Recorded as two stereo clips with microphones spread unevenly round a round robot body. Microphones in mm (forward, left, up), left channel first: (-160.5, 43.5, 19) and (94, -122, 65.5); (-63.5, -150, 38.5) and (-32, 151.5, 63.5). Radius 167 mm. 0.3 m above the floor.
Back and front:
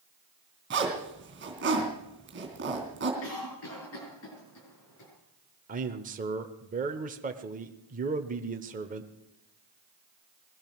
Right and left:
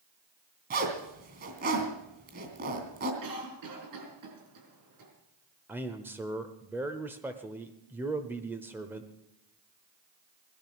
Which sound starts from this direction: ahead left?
A zipper, at 0.7 s.